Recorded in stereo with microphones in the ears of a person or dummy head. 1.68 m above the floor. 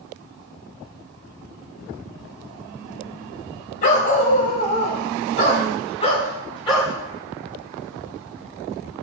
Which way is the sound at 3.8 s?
45° left (ahead or behind).